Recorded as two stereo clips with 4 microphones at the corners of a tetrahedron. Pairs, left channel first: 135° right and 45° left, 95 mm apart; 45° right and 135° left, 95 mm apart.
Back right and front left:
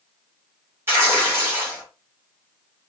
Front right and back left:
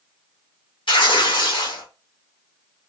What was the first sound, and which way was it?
Tearing paper, 20° right.